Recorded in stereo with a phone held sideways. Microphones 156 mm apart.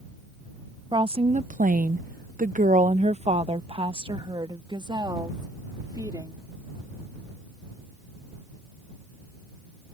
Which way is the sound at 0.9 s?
30° right (ahead or behind).